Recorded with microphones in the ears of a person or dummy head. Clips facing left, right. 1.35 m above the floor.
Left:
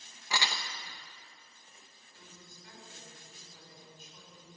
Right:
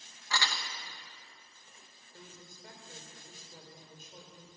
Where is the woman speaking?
50° right (ahead or behind), 6 m.